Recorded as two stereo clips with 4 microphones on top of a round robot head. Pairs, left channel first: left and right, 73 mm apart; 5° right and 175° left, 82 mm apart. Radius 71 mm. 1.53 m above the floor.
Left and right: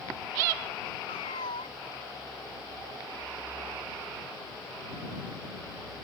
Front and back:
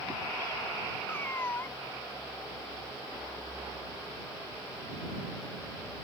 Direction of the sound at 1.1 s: 55° left.